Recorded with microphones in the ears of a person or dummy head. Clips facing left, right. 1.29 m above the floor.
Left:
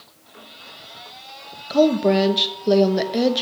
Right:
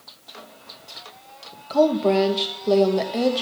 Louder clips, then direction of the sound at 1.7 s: Left 2 dB; 20° left (ahead or behind).